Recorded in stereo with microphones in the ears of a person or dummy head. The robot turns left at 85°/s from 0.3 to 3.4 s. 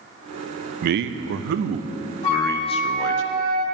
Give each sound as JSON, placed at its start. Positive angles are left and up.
{"t": 0.8, "sound": "a man speaking", "azimuth_deg": -45, "distance_m": 0.5}
{"t": 2.2, "sound": "a flute", "azimuth_deg": 45, "distance_m": 1.9}